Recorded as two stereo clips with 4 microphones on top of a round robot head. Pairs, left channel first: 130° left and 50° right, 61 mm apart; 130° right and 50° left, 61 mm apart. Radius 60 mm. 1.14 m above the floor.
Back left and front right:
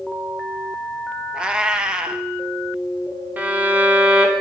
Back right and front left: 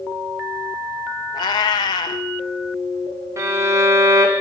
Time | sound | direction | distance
1.3 | a cat meowing | 130° right | 0.5 m
3.4 | a violin | 10° left | 1.5 m